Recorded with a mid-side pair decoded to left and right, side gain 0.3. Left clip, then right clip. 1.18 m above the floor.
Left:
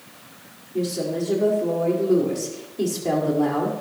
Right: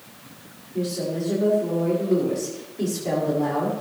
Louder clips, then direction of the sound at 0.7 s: Left 2 dB; 55° left.